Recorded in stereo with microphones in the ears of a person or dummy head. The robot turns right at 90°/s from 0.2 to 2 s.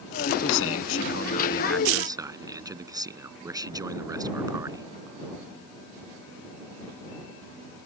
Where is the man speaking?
50° left; by 4.9 s 165° right.